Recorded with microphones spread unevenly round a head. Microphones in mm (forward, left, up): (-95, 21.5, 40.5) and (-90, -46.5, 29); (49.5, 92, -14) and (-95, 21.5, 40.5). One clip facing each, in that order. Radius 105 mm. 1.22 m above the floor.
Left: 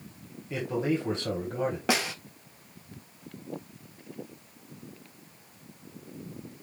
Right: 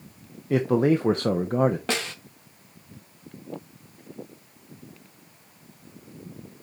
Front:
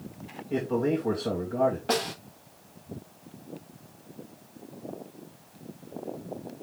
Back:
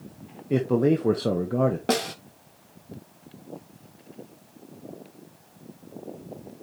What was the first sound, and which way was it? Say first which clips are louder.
A man speaking: right 8 dB, back 5 dB; 105° right.